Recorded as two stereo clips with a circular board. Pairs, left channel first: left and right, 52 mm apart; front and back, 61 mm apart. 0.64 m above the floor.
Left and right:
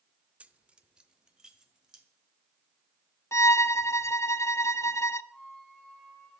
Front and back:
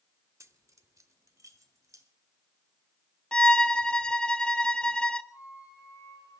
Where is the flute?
15° left, 7 m.